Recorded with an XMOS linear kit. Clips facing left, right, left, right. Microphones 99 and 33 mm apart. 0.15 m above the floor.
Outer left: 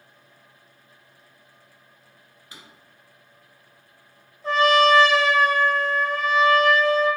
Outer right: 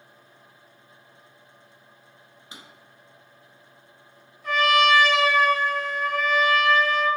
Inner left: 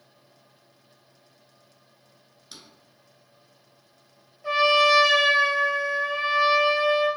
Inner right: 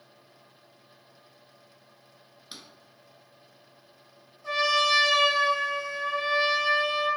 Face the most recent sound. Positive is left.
turn(degrees=30)  # may be behind; listen again after turning